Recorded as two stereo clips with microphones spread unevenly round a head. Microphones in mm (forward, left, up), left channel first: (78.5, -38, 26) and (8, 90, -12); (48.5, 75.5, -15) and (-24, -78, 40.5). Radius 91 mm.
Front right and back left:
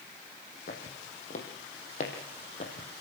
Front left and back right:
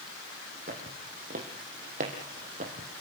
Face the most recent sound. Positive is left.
turn(degrees=-95)